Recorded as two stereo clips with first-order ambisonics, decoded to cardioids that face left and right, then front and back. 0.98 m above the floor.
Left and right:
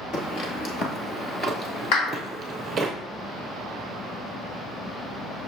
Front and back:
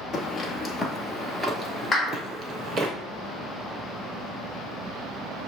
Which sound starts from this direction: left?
A clap, at 1.9 s.